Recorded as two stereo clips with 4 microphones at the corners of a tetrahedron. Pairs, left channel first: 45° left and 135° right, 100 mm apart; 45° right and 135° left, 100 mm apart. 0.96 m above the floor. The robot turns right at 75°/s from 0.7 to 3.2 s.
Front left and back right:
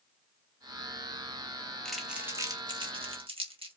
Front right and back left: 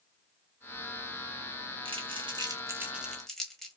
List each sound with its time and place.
1.9 s crumpling: 125° left, 1.4 m; by 3.8 s 130° right, 1.4 m